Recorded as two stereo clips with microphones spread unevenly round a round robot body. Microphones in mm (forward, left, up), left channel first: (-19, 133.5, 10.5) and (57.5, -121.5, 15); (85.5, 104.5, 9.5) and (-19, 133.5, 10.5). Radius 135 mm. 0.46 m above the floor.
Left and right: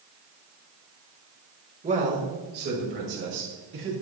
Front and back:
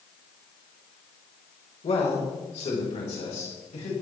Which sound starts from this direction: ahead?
A man speaking, at 1.8 s.